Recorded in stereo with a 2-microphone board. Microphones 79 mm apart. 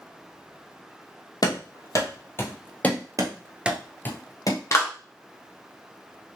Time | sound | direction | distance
1.4 | running footsteps | 55° left (ahead or behind) | 1.0 m
3.2 | running footsteps | 50° right (ahead or behind) | 0.8 m
4.7 | a clap | 40° left (ahead or behind) | 0.9 m